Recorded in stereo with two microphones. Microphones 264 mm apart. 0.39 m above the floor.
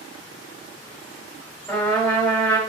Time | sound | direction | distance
1.7 | a trumpet | 5° left (ahead or behind) | 1.8 m